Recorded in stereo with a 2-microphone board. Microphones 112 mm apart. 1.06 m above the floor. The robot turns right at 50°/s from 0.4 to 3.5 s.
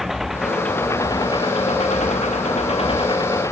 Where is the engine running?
Straight ahead; by 3.5 s 155° left.